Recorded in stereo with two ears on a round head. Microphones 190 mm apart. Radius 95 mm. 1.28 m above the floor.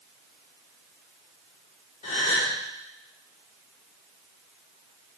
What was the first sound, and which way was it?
A gasp, 30° left (ahead or behind).